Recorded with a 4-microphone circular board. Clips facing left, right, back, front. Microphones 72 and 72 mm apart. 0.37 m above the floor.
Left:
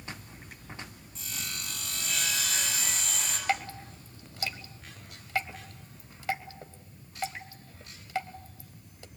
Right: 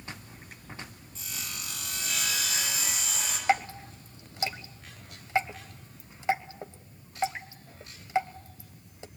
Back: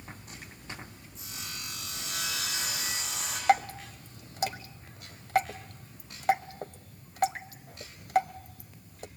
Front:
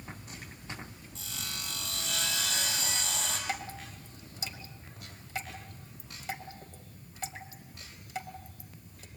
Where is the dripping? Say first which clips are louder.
Right 5 dB, back 13 dB; 155° right, 1.2 m.